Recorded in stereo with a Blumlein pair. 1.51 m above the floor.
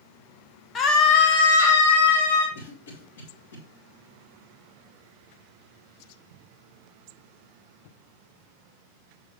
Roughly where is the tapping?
No tapping in this recording.